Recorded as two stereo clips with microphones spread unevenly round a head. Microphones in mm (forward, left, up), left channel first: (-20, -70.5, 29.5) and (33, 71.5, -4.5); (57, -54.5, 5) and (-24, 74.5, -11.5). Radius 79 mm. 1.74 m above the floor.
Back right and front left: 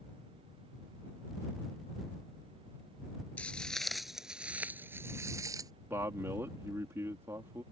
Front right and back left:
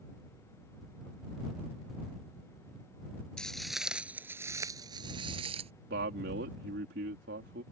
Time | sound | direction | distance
3.4 | footsteps | 115° right | ?
5.9 | a man speaking | 150° left | ?